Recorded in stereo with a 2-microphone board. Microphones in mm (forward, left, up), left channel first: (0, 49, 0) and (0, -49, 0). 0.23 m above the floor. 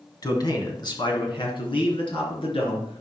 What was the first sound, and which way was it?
A man speaking, 40° left (ahead or behind).